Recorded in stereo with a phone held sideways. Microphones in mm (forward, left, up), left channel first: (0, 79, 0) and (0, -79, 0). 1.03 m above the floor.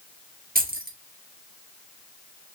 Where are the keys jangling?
65° right (ahead or behind), 0.7 m.